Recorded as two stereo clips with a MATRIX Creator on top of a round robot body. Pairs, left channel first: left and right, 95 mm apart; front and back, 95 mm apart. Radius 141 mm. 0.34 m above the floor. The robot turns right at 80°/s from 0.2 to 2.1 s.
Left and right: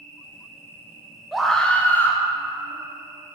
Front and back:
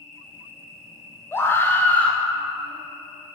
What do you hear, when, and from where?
0.0 s an insect: 95° left, 2.5 m; by 3.4 s 110° right, 2.5 m
1.3 s a scream: 5° right, 0.9 m; by 2.2 s 60° left, 0.9 m